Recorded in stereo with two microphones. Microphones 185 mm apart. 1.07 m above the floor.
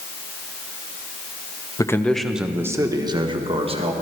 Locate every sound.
1.8 s a man speaking: 20° left (ahead or behind), 0.6 m; by 3.9 s 30° right (ahead or behind), 1.3 m